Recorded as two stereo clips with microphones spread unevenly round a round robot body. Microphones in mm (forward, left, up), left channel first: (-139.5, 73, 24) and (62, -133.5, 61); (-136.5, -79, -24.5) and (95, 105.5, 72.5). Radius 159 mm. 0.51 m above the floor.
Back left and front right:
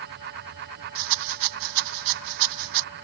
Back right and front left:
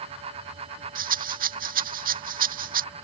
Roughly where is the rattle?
Ahead right.